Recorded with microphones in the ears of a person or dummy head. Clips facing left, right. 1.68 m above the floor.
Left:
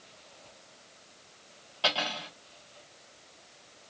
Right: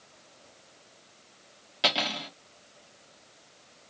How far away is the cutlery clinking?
About 0.8 m.